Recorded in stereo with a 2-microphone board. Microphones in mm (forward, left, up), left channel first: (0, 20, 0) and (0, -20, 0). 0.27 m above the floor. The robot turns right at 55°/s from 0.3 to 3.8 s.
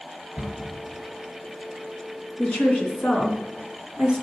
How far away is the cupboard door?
About 3.5 m.